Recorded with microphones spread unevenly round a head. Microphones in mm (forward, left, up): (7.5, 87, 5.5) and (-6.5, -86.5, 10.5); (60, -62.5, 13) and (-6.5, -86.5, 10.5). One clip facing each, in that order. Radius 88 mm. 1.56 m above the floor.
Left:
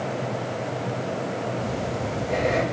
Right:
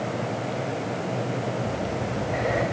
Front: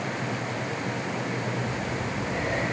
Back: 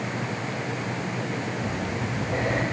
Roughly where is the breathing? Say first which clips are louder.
Even, back 1 dB; behind left.